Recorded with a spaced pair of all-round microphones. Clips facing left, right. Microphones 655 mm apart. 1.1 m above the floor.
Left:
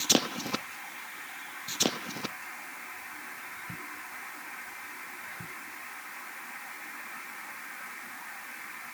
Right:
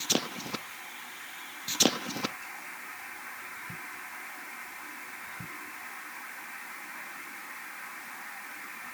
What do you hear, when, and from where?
Only background noise.